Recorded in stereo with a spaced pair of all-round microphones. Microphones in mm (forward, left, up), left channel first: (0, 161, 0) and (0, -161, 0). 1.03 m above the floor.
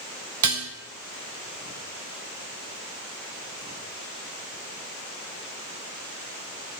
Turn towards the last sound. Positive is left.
turn(degrees=-65)  # may be behind; listen again after turning